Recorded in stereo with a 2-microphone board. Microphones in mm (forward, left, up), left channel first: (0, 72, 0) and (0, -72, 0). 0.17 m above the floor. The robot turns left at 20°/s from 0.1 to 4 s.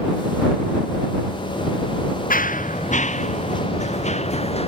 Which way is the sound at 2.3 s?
75° left (ahead or behind).